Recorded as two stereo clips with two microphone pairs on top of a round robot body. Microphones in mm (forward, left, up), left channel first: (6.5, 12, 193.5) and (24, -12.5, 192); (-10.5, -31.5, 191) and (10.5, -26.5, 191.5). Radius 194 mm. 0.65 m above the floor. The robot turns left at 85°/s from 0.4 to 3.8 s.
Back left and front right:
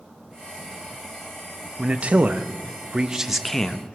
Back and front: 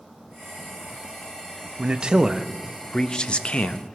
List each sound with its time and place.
1.8 s a man speaking: 5° right, 0.8 m; by 4.0 s 175° right, 0.8 m